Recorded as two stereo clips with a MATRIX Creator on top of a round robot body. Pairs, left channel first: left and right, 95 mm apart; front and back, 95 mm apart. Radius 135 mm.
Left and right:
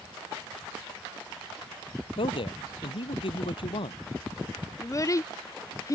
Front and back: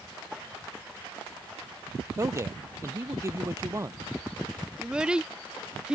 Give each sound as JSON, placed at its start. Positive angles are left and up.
{"t": 2.2, "sound": "a man speaking", "azimuth_deg": 120}
{"t": 4.8, "sound": "a child speaking", "azimuth_deg": 105}